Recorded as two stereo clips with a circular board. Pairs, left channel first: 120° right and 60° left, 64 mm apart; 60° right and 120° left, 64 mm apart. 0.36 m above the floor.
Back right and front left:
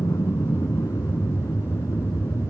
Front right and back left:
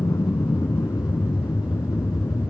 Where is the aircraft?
90° right.